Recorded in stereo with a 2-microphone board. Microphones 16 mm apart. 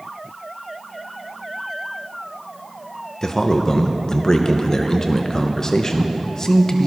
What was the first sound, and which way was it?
A man speaking, 35° left (ahead or behind).